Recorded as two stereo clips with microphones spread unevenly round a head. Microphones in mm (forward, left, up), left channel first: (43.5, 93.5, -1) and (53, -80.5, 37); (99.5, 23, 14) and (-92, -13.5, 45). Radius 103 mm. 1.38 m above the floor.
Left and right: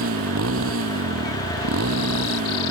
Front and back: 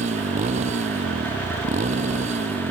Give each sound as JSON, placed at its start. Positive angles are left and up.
{"t": 0.0, "sound": "a motorcycle", "azimuth_deg": -110}